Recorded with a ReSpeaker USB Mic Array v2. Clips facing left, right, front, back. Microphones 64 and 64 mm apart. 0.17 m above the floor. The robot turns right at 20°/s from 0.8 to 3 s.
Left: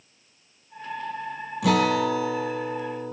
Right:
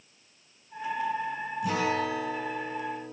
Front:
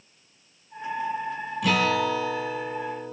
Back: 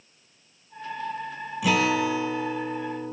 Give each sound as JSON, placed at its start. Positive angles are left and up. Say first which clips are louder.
{"t": 1.6, "sound": "a guitar", "louder": "left 7 dB, even", "azimuth_deg": 95, "distance_m": 4.0}